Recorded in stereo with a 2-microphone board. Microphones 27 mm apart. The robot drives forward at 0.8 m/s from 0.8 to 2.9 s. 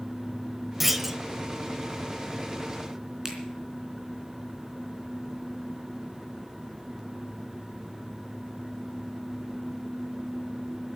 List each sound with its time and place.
0.8 s a clunk: 10° right (ahead or behind), 1.2 m
3.2 s a finger snap: 20° right (ahead or behind), 3.5 m